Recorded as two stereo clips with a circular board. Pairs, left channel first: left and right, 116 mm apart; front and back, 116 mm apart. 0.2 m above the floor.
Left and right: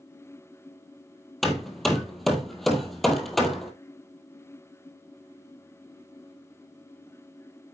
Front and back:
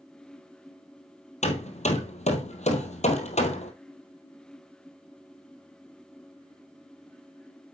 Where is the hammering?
Straight ahead, 1.9 m.